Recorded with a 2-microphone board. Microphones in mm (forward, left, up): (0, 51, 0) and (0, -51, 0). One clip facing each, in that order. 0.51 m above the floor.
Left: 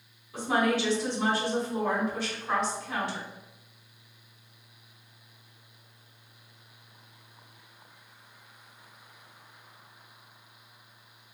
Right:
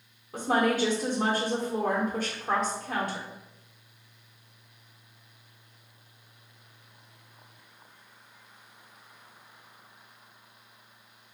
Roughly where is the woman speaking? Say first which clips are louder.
Right 1 dB; right.